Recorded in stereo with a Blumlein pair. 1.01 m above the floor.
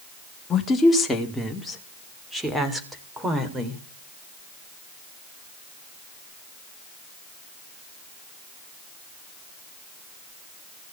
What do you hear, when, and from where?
0.5 s a woman speaking: 20° left, 2 m; by 3.8 s 15° right, 4 m